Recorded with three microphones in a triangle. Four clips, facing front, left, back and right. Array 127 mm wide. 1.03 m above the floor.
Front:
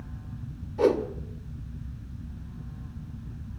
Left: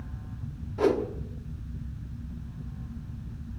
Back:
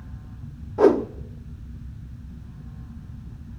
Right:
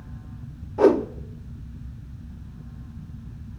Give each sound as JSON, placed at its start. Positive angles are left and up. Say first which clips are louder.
{"t": 0.8, "sound": "a whoosh", "louder": "right 7 dB, back 6 dB", "azimuth_deg": -150, "distance_m": 0.9}